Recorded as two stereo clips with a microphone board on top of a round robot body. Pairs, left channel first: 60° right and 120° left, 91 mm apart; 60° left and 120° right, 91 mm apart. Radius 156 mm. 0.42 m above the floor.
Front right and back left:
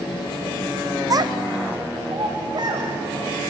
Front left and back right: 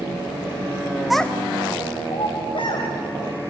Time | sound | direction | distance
1.1 | a child speaking | 155° left | 0.7 m